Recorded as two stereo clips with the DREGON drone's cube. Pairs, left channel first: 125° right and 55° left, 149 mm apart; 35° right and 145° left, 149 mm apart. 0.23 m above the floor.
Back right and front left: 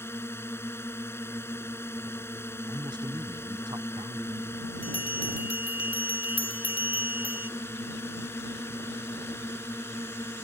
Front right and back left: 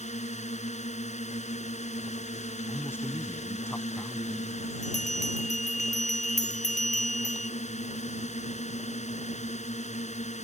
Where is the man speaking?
25° left.